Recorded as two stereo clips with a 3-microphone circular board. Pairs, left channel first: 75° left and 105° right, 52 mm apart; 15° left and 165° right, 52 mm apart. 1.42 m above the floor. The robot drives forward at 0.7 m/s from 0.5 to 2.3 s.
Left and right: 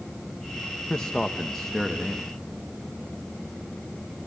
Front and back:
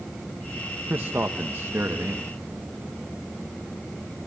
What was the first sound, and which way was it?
A man speaking, 150° left.